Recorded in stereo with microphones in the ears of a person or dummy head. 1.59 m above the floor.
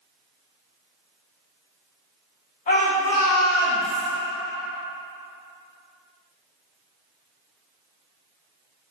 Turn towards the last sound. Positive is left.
turn(degrees=5)  # may be behind; listen again after turning